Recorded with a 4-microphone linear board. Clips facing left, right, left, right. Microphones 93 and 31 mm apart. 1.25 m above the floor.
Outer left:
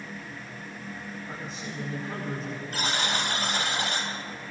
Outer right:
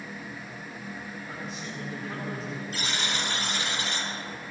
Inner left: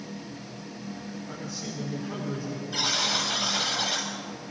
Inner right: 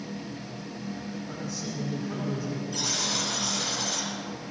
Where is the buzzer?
45° left (ahead or behind), 3.5 m.